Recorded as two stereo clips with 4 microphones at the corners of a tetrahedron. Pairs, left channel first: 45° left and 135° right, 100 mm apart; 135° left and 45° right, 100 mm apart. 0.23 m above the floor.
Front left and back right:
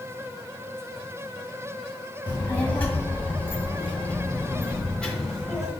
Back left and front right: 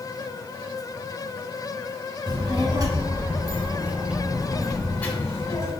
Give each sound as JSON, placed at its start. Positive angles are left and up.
{"t": 2.3, "sound": "a child speaking", "azimuth_deg": -25, "distance_m": 1.7}